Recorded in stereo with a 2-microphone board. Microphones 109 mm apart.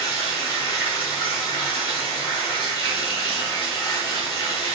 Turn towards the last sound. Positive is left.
turn(degrees=45)  # may be behind; listen again after turning